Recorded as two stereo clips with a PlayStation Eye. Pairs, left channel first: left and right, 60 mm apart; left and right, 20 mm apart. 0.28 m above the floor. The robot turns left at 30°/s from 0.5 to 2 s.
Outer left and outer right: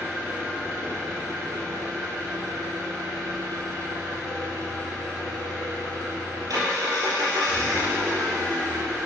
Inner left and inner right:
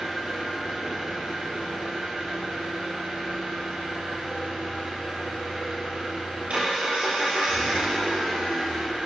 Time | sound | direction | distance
0.0 | an engine running | 30° right | 3.5 m